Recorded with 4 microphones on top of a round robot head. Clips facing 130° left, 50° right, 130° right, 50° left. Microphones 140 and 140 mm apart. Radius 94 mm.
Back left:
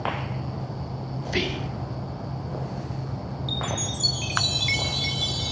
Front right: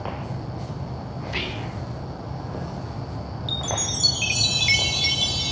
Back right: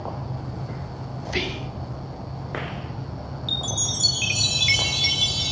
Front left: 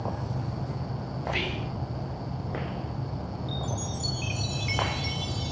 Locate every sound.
1.2 s whispering: 175° left, 2.5 m
3.5 s a chime: 125° right, 0.9 m